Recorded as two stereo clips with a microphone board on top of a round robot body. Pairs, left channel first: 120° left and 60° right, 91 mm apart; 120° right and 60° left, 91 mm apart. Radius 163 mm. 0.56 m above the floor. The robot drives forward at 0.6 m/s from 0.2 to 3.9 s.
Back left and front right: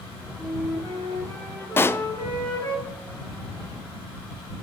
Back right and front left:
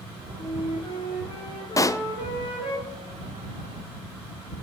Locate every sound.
0.4 s a flute: 175° right, 7 m
1.8 s a pop: 175° right, 0.5 m